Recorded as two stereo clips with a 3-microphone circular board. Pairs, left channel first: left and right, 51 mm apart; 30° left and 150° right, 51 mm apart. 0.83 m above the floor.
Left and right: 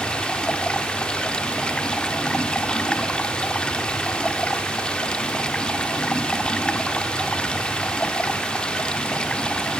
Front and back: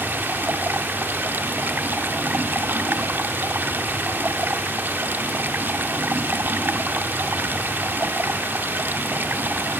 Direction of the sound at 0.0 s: 160° left.